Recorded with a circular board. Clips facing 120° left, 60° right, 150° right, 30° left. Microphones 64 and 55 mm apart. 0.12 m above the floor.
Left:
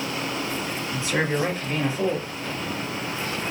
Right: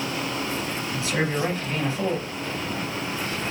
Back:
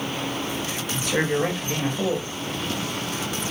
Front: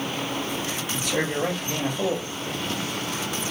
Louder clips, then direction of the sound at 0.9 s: Left 2 dB, back 4 dB; 175° left.